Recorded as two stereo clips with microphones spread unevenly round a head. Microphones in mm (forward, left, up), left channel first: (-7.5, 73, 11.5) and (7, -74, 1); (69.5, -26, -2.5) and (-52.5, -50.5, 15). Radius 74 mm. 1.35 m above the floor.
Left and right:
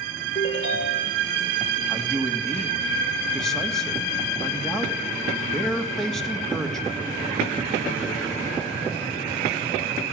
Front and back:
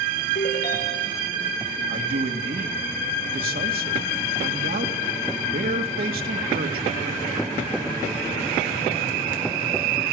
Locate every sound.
0.3 s a ringtone: 45° left, 4 m
1.9 s a man speaking: 175° right, 2.5 m